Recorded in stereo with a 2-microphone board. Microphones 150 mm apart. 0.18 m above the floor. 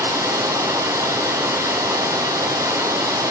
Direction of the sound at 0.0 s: 20° right (ahead or behind).